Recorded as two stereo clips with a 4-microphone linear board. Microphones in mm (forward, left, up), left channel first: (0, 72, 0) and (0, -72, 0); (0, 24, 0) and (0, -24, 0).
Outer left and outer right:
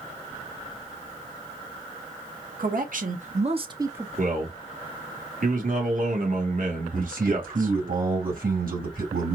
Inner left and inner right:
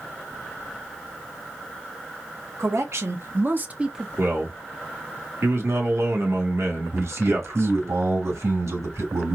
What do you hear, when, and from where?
2.6 s a man speaking: 75° right (ahead or behind), 1.3 m; by 4.1 s 10° right (ahead or behind), 0.7 m
4.2 s a man speaking: 70° right (ahead or behind), 1.6 m
6.9 s a man speaking: 85° right, 2.5 m